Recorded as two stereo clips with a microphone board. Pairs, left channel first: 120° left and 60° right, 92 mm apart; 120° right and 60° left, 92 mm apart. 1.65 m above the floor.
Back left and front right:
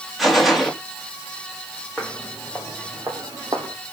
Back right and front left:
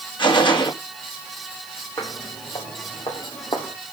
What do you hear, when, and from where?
0.2 s a gunshot: 150° right, 2.5 m
2.0 s footsteps: 145° right, 3 m; by 3.7 s 95° right, 3.5 m